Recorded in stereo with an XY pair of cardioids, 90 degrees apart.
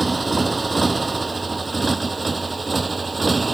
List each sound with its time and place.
0.0 s a motorcycle: 25° right; by 3.5 s 30° right